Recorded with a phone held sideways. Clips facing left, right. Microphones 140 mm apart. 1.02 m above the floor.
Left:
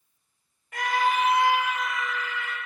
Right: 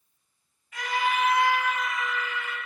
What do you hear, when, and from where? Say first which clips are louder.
0.7 s a scream: left 3 dB; 55° left (ahead or behind), 0.8 m; by 2.6 s 15° right (ahead or behind), 1.2 m